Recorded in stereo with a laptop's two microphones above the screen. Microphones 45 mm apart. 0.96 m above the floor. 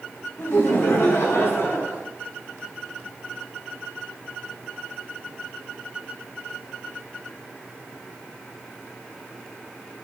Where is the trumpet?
I don't hear a trumpet.